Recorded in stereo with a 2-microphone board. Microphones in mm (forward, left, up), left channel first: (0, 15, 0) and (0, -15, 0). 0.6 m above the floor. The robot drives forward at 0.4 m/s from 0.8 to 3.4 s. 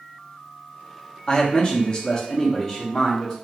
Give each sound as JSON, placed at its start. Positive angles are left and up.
{"t": 1.3, "sound": "a man speaking", "side_deg": 30, "distance_m": 0.6}